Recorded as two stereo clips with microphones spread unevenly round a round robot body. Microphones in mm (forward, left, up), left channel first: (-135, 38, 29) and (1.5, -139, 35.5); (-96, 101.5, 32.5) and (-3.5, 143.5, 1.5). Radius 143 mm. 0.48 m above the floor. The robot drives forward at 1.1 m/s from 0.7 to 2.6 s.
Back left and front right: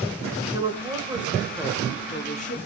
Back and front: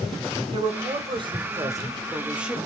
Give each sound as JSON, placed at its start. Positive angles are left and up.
{"t": 0.5, "sound": "a woman speaking", "azimuth_deg": 25, "distance_m": 2.5}